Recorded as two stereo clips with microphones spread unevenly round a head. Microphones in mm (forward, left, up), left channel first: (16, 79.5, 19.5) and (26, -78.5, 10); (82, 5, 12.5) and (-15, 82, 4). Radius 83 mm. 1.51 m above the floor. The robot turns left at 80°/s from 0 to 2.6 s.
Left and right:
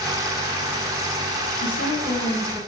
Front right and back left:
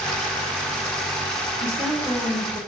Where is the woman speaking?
85° left, 5.5 m; by 2.6 s 10° left, 5.5 m.